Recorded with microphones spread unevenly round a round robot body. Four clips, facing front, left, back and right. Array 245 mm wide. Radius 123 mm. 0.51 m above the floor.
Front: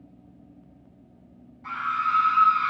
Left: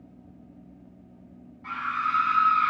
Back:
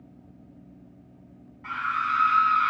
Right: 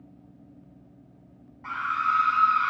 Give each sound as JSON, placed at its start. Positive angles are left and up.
{"t": 1.6, "sound": "a scream", "azimuth_deg": -95, "distance_m": 2.0}